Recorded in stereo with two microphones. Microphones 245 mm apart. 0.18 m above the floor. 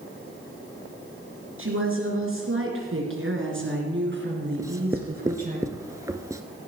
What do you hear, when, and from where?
1.6 s a woman speaking: 60° right (ahead or behind), 3 m; by 5.6 s 35° right (ahead or behind), 3 m
4.6 s writing: 15° right (ahead or behind), 0.7 m